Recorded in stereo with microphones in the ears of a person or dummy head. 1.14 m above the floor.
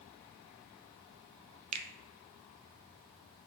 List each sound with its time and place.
1.7 s a finger snap: 35° right (ahead or behind), 0.8 m